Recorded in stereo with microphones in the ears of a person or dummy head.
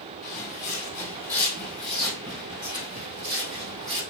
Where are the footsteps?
5° left (ahead or behind), 2.0 m; by 4.0 s 55° right (ahead or behind), 3 m.